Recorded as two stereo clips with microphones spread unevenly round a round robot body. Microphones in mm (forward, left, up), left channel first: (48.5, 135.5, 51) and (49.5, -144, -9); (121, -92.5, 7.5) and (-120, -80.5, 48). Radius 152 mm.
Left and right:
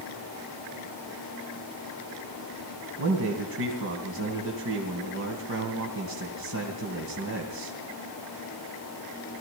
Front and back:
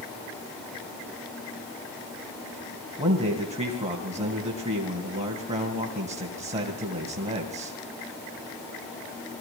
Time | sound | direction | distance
3.0 | a man speaking | 115° right | 2.5 m